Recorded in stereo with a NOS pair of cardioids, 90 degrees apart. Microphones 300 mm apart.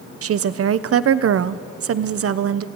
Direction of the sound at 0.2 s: 50° right.